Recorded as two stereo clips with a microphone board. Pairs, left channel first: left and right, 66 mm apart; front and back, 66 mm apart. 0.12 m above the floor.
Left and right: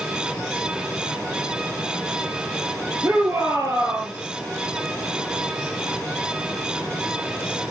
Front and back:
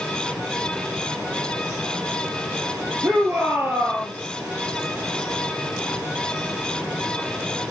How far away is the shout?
About 3 m.